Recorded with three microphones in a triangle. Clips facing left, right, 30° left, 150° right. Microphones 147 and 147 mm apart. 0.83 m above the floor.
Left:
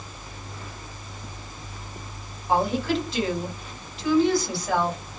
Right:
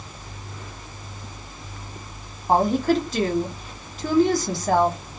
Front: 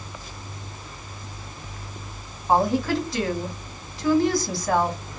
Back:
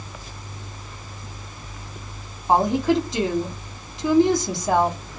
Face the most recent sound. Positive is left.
turn(degrees=-90)